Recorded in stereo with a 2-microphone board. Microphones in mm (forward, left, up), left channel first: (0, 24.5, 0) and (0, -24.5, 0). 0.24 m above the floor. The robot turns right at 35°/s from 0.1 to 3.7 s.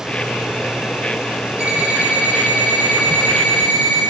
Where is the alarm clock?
145° right, 6 m; by 4.0 s 70° right, 6 m.